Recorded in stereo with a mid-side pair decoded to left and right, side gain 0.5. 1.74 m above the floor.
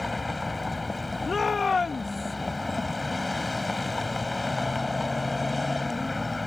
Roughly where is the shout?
Ahead left.